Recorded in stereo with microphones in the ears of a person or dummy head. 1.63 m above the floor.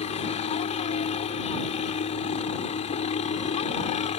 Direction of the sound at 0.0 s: 30° left (ahead or behind).